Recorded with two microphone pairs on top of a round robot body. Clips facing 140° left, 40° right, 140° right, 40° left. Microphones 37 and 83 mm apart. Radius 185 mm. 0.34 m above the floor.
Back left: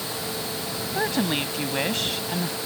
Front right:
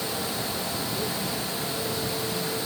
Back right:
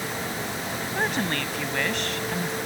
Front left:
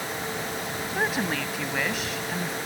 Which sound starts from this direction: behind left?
A woman speaking, at 0.9 s.